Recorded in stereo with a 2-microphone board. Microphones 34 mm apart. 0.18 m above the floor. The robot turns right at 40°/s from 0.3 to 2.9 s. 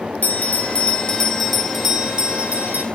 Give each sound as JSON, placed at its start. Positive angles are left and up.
{"t": 0.2, "sound": "a bell", "azimuth_deg": 130, "distance_m": 2.0}